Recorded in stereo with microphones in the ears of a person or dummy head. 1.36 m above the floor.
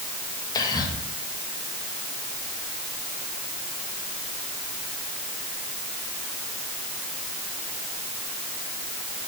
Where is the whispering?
25° left (ahead or behind), 1.8 m.